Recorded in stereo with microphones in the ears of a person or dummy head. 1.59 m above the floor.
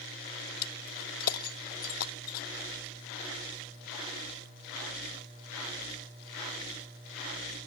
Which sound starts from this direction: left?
Breaking glass, at 0.6 s.